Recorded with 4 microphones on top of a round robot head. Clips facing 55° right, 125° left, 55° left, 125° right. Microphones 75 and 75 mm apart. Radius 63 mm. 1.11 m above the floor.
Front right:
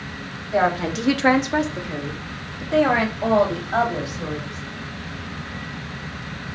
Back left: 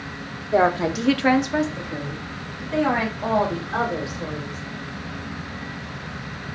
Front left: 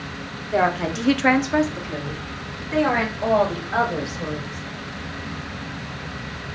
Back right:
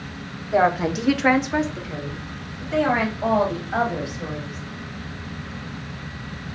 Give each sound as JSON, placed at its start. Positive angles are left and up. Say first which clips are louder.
{"t": 0.5, "sound": "a woman speaking", "louder": "back left 1 dB, back right 2 dB", "azimuth_deg": 155, "distance_m": 0.8}